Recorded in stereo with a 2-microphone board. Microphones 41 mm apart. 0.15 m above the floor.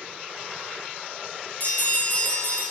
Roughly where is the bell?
Left.